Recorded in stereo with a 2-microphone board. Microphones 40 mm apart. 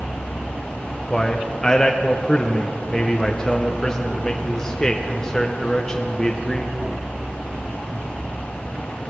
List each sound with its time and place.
1.1 s a man speaking: 15° left (ahead or behind), 0.8 m